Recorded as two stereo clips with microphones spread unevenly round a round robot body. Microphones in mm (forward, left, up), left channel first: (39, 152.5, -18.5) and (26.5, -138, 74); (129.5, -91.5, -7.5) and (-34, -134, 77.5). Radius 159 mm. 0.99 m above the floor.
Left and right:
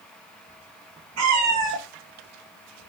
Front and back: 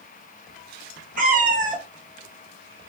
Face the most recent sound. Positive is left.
turn(degrees=-105)